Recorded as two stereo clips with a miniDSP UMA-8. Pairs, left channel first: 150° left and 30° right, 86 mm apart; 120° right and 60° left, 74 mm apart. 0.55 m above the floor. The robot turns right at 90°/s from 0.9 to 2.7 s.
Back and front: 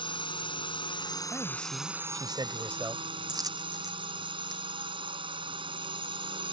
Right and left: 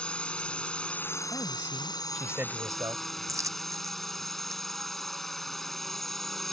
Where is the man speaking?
100° right; by 3.0 s 25° left.